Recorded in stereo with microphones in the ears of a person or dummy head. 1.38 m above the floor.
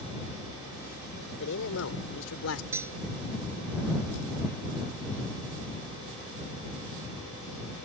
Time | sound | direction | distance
1.4 | a man speaking | 70° left (ahead or behind) | ?
2.7 | cutlery clinking | 15° right (ahead or behind) | ?